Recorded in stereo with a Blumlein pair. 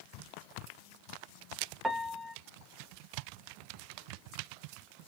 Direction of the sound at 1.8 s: 5° right.